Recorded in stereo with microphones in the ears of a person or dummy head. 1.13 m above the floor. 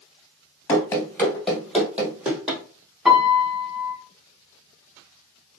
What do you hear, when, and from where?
0.7 s running footsteps: 25° left (ahead or behind), 1.2 m; by 2.6 s 10° right (ahead or behind), 2.5 m
3.0 s a piano: centre (ahead or behind), 1.6 m